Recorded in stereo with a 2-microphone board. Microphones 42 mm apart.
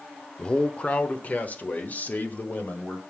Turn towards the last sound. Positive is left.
turn(degrees=45)  # may be behind; listen again after turning